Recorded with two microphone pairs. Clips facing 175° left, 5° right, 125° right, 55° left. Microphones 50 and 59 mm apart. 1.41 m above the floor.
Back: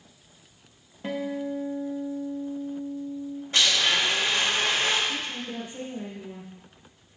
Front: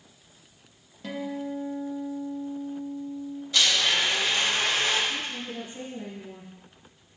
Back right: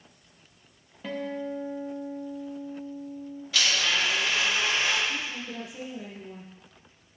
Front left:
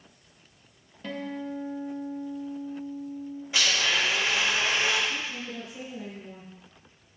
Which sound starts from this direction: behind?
A woman speaking, at 5.1 s.